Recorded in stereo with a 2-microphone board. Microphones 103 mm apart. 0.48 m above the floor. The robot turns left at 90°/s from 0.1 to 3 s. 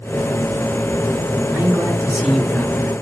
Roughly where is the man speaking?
Right.